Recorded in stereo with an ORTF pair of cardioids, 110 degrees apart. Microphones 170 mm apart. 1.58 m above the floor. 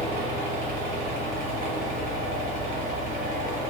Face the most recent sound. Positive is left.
turn(degrees=-65)